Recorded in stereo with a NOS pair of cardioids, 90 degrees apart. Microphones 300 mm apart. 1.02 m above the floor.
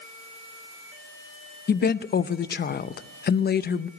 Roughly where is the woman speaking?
Ahead left.